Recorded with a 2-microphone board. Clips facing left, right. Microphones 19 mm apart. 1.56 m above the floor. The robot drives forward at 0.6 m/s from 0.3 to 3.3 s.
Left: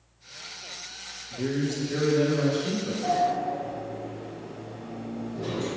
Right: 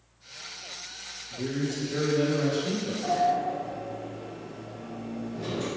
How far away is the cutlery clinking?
No cutlery clinking in this recording.